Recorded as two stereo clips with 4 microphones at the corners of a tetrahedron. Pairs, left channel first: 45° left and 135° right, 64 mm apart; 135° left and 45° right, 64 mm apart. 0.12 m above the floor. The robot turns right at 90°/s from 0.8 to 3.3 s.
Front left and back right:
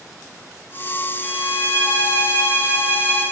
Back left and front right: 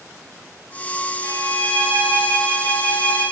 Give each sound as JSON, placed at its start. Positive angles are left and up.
{"t": 1.2, "sound": "a violin", "azimuth_deg": -55, "distance_m": 6.0}